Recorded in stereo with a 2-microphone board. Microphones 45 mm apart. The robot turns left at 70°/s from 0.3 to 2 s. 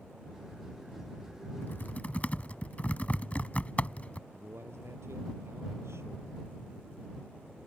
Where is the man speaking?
75° right (ahead or behind).